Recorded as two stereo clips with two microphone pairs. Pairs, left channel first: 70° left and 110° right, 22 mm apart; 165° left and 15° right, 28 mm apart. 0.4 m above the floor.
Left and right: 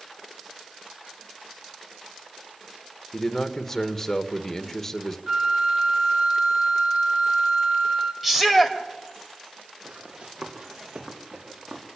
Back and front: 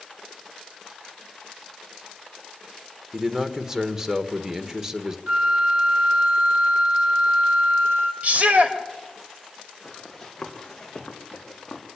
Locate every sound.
3.1 s a man speaking: 25° left, 1.5 m
5.3 s a flute: 40° right, 3.5 m
8.2 s a shout: 30° right, 2 m
9.8 s running footsteps: 105° right, 5 m; by 11.8 s 135° right, 5.5 m